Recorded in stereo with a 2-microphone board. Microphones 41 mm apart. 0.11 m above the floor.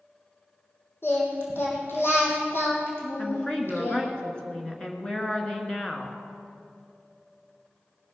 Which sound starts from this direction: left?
Singing, at 1.0 s.